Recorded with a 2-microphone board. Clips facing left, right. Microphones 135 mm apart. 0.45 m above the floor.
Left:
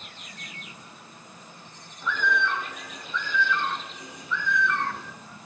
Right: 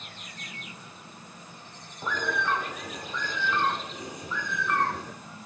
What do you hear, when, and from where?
2.0 s a bird: 40° right (ahead or behind), 0.5 m